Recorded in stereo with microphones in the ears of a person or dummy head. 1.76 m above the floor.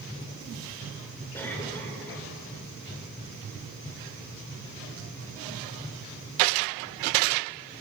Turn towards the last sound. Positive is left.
turn(degrees=10)  # may be behind; listen again after turning